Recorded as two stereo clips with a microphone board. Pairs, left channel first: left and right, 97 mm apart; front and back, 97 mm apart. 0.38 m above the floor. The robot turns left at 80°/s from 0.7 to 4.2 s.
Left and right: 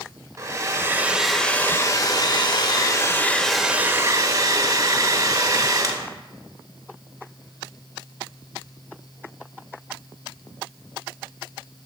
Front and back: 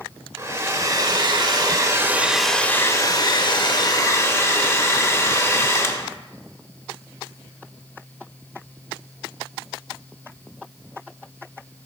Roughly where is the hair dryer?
Behind right.